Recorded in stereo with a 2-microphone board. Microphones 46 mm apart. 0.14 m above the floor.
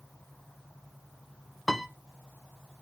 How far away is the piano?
About 0.6 m.